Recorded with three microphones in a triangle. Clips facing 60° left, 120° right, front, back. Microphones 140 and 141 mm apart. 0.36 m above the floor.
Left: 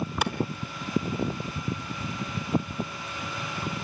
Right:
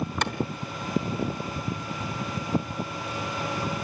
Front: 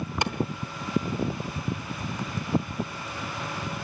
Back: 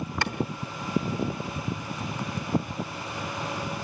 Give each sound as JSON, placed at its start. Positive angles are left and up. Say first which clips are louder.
{"t": 0.2, "sound": "a clap", "louder": "left 2 dB, front 3 dB", "azimuth_deg": -10, "distance_m": 1.1}